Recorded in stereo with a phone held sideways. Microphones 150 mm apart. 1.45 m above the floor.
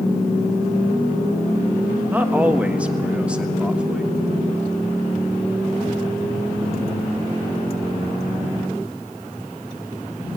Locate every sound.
2.1 s a man speaking: 10° right (ahead or behind), 1.3 m; by 4.2 s 5° right (ahead or behind), 3 m